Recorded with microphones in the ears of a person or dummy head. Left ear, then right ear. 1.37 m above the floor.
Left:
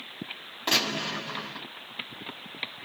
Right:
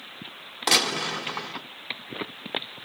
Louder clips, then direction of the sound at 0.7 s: Right 4 dB; 35° right (ahead or behind).